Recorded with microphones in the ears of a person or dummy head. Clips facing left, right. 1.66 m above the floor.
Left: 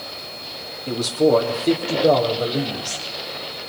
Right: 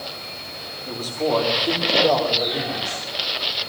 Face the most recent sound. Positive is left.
turn(degrees=25)  # may be behind; listen again after turning